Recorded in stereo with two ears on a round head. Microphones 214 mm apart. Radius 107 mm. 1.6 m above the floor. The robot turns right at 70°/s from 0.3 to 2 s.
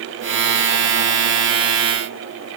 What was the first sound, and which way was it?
Only background noise.